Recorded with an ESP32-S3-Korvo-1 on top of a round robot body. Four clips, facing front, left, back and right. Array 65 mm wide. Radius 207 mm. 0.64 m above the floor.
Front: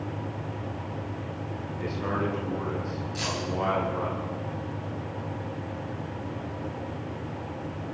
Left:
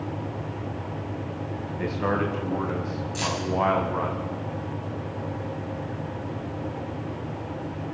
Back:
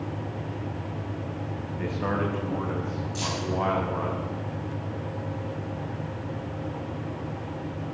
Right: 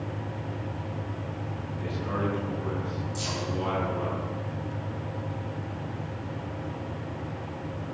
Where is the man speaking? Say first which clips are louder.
Left 5 dB, back 1 dB; 115° left, 5 m; by 4.2 s 100° left, 5 m.